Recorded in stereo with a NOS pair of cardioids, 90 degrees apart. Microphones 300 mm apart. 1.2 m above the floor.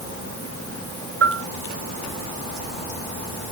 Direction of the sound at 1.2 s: 50° right.